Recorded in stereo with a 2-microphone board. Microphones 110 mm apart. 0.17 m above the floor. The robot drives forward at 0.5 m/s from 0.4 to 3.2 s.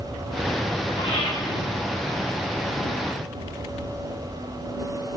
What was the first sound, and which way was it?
Breathing, 55° left (ahead or behind).